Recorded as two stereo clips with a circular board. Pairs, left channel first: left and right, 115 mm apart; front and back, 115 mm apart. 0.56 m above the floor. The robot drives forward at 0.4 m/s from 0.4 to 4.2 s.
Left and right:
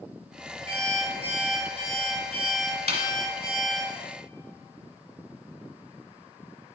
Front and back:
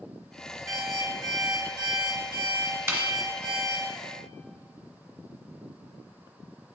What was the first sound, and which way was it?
An alarm clock, 120° right.